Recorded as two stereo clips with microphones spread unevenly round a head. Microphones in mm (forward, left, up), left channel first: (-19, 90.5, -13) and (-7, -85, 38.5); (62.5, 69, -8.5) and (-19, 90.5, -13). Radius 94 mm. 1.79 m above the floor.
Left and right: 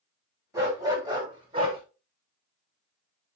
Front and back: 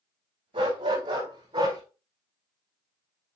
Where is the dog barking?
155° right, 4.5 m; by 1.8 s 140° right, 5 m.